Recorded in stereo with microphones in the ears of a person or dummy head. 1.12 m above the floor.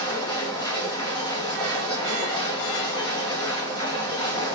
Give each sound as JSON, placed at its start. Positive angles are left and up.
{"t": 0.0, "sound": "a machine running", "side_deg": 20, "distance_m": 1.2}